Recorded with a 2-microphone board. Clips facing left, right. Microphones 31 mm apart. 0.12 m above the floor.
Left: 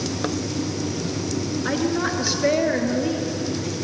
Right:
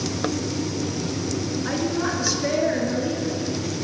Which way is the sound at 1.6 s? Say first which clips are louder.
Left 2 dB; 20° left (ahead or behind).